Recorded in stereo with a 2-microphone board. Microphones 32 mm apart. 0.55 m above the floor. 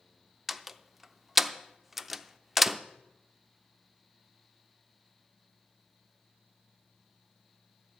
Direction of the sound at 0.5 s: 5° right (ahead or behind).